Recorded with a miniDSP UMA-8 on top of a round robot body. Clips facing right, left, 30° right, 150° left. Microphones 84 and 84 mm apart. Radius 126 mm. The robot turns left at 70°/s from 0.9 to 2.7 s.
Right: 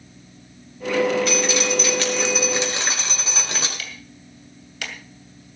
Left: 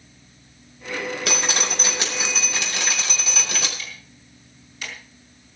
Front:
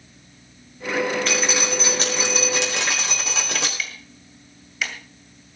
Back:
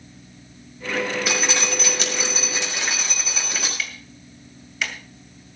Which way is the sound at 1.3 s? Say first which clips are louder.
Right 5 dB, front 1 dB; 70° left.